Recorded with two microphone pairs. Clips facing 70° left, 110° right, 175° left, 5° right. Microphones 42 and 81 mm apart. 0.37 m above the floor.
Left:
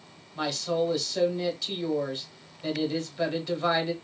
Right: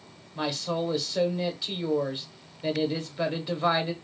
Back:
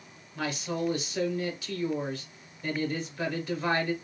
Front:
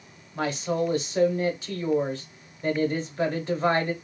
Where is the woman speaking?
40° right, 1.0 m.